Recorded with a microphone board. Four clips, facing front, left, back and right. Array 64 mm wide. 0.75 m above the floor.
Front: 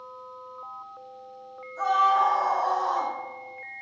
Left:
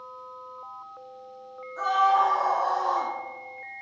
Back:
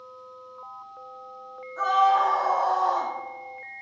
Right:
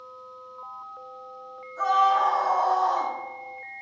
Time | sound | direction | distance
1.8 | a scream | 150° left | 2.5 m